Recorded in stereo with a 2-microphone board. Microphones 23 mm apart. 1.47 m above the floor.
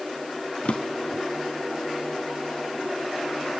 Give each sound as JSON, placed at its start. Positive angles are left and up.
{"t": 0.7, "sound": "a drawer", "side_deg": 65}